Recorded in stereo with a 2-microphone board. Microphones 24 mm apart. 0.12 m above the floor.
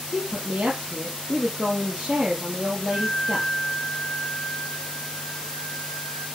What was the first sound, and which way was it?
A woman speaking, 60° right (ahead or behind).